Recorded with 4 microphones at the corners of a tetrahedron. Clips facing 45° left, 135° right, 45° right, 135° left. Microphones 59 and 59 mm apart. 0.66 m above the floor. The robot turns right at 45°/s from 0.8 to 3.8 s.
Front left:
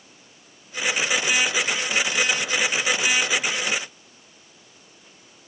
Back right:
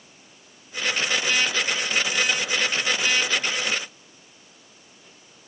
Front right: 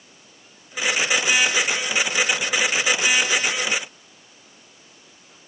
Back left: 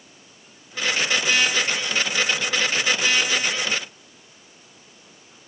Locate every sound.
Only background noise.